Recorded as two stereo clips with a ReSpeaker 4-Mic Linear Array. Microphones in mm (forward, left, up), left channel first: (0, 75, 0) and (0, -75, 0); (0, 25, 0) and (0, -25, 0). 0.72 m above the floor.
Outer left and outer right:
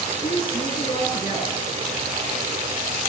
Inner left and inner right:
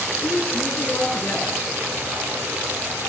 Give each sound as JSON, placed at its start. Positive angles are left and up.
{"t": 0.2, "sound": "a woman speaking", "side_deg": 35, "distance_m": 9.5}